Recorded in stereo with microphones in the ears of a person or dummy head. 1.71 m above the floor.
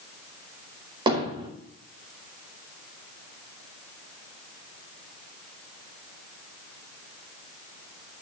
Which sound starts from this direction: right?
Hammering, at 1.1 s.